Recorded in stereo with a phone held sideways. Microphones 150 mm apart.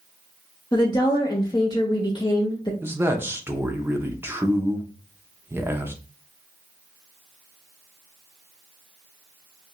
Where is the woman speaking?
30° left (ahead or behind), 0.7 m.